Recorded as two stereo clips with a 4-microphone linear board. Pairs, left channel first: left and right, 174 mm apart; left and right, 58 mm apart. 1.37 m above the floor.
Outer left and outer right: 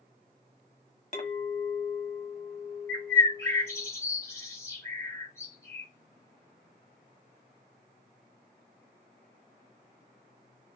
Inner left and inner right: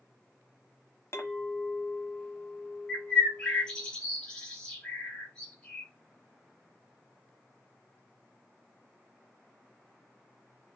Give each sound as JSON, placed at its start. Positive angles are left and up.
{"t": 1.1, "sound": "a clink", "side_deg": 45, "distance_m": 0.9}
{"t": 2.9, "sound": "a bird", "side_deg": 15, "distance_m": 1.4}